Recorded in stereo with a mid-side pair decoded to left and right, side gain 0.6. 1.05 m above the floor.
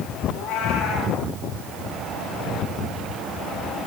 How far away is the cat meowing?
About 5 m.